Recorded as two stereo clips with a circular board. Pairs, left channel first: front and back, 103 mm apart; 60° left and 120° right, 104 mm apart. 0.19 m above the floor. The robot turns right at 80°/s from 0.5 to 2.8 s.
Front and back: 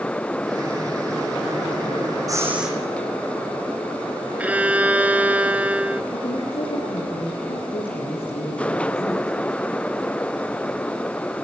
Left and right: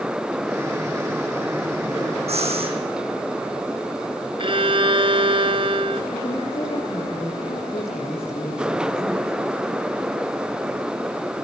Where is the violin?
105° right, 1.0 m.